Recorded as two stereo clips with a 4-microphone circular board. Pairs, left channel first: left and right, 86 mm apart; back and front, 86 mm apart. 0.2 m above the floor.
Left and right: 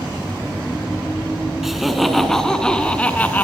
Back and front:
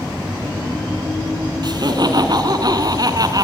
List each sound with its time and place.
1.6 s laughter: 5° right, 2.5 m; by 3.4 s 25° left, 2.5 m